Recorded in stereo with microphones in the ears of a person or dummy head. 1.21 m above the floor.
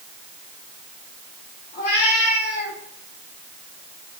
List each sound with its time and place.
1.7 s a cat meowing: 50° left (ahead or behind), 2.5 m; by 2.8 s 45° left (ahead or behind), 4 m